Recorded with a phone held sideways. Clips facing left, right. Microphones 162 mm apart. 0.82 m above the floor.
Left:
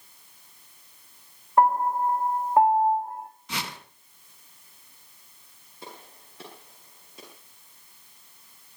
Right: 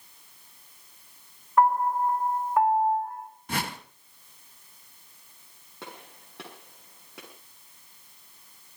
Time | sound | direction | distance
1.6 | a piano | 25° left (ahead or behind) | 2.0 m
3.5 | a whoosh | 50° right (ahead or behind) | 1.4 m
5.8 | a gunshot | 70° right (ahead or behind) | 7.5 m